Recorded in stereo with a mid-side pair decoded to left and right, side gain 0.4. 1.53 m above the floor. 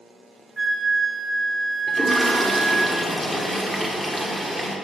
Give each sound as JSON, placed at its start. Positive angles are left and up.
{"t": 0.6, "sound": "a flute", "azimuth_deg": -20, "distance_m": 0.5}
{"t": 1.9, "sound": "a toilet flushing", "azimuth_deg": 0, "distance_m": 1.2}